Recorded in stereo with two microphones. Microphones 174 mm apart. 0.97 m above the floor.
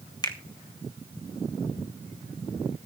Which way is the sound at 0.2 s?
25° left (ahead or behind).